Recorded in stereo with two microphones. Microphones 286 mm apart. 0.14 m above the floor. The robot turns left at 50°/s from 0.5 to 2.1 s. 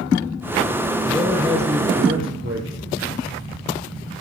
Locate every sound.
1.0 s a man speaking: 5° left, 3.5 m; by 2.9 s 50° right, 3.5 m